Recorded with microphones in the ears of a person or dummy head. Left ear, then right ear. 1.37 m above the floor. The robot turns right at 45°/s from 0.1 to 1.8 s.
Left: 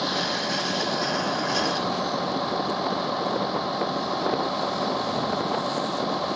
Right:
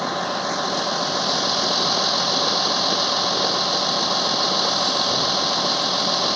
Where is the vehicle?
150° right; by 6.4 s 70° right.